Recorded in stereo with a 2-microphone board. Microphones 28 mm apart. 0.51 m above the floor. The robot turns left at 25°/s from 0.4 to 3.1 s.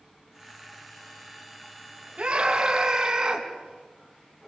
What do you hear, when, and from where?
2.2 s a scream: 45° right (ahead or behind), 5.5 m; by 3.5 s 20° right (ahead or behind), 5.5 m